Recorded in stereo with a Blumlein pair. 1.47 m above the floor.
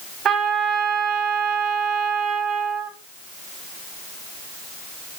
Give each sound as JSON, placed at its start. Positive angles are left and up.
{"t": 0.2, "sound": "a trumpet", "azimuth_deg": -25, "distance_m": 1.9}